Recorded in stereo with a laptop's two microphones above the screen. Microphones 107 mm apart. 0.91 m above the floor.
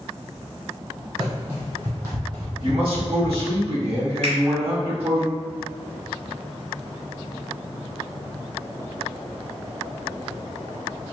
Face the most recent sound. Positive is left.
turn(degrees=-80)